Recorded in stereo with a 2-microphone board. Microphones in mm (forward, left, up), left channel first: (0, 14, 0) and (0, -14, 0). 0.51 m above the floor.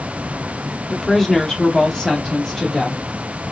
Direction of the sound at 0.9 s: 10° left (ahead or behind).